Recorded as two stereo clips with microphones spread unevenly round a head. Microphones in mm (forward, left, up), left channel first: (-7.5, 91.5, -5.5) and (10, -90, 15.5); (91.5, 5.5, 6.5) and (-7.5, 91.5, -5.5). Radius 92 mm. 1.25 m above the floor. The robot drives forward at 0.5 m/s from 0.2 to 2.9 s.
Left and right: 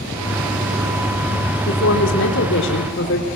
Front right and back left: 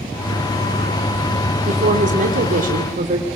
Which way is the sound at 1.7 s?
115° left.